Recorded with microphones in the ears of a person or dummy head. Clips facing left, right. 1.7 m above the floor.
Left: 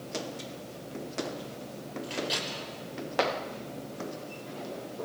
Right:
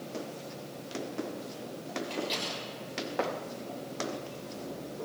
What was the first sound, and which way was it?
A microwave, 5° left (ahead or behind).